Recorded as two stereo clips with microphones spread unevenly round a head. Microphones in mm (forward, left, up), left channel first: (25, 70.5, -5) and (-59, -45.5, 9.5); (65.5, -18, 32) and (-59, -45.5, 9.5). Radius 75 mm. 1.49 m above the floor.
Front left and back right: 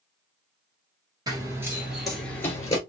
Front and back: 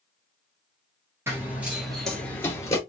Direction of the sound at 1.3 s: 90° right.